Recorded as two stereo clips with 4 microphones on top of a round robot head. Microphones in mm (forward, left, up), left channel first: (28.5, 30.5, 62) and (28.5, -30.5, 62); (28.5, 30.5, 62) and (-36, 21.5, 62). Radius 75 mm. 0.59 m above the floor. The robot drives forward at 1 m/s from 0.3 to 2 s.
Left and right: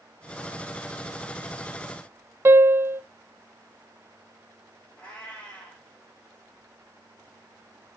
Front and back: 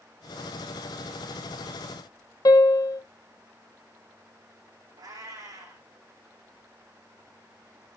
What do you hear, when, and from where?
2.5 s a piano: 35° right, 0.7 m
5.0 s a cat meowing: 165° left, 5 m